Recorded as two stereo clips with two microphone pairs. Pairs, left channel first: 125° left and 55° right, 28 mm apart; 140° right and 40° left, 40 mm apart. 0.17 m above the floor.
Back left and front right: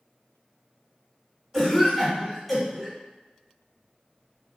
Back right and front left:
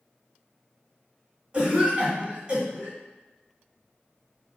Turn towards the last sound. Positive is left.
turn(degrees=40)